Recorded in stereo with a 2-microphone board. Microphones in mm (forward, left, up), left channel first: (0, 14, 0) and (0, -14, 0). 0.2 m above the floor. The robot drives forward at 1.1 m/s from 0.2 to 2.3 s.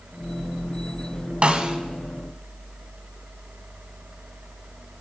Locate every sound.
1.4 s a snare drum: 35° right (ahead or behind), 0.5 m; by 1.8 s 25° right (ahead or behind), 0.8 m